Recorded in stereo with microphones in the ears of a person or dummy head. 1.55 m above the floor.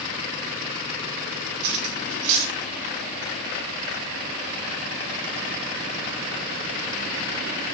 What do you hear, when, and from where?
1.6 s cutlery clinking: 65° right (ahead or behind), 1.8 m